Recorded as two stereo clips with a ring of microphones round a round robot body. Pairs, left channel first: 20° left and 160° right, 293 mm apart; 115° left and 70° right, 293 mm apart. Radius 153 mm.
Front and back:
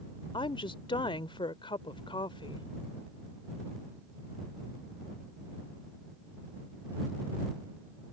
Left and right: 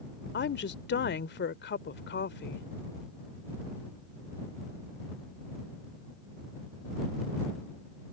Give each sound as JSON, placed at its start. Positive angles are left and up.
{"t": 0.3, "sound": "a woman speaking", "azimuth_deg": 85}